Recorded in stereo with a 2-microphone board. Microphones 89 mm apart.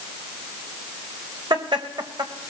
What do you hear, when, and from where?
1.5 s laughter: 65° right (ahead or behind), 2.5 m; by 2.5 s 70° right (ahead or behind), 3 m